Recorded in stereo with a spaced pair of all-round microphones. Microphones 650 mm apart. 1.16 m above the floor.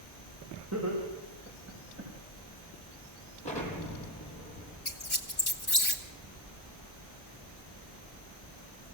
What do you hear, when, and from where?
0.7 s laughter: 25° right (ahead or behind), 5 m; by 2.1 s 20° right (ahead or behind), 7 m
3.4 s an explosion: 10° left (ahead or behind), 6.5 m
4.8 s a squeak: 35° left (ahead or behind), 1.9 m